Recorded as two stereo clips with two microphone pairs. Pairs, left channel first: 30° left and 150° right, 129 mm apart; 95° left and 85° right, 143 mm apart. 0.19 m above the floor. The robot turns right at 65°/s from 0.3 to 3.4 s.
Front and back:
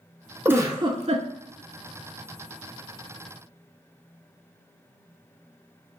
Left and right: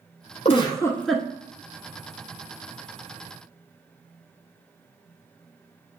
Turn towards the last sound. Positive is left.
turn(degrees=-30)